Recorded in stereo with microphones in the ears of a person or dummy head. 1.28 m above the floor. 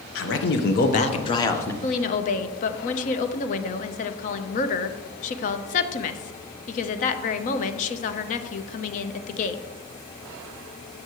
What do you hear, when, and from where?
0.1 s a man speaking: 70° left (ahead or behind), 1.3 m; by 1.7 s 15° left (ahead or behind), 1.3 m
1.8 s a woman speaking: 45° left (ahead or behind), 0.9 m